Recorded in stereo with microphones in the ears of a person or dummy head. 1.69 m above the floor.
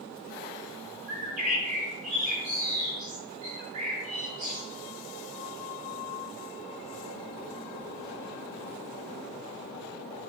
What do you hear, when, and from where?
1.1 s a bird: 35° right (ahead or behind), 2 m